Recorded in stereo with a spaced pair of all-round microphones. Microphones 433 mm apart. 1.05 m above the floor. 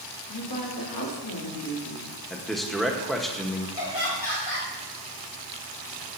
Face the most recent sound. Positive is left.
turn(degrees=80)